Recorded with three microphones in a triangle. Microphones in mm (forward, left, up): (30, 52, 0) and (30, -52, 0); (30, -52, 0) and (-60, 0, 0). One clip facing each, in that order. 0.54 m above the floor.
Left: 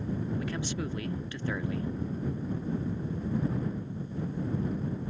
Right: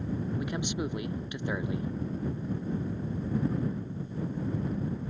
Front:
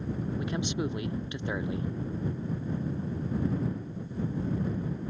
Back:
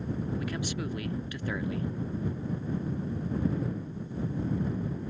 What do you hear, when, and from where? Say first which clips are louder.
0.4 s a man speaking: right 1 dB, front 3 dB; 50° right